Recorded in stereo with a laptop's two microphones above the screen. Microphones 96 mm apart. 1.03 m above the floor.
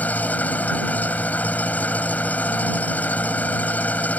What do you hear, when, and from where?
0.0 s an engine running: 15° left (ahead or behind)